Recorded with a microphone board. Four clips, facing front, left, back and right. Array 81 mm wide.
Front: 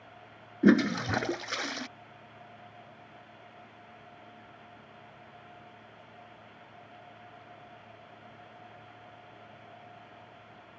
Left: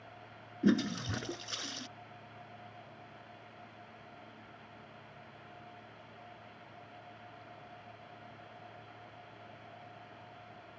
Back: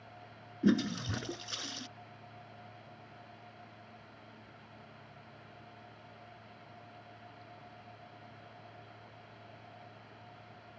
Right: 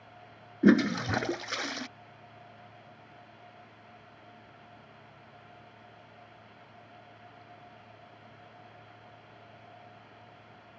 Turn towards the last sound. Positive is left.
turn(degrees=-45)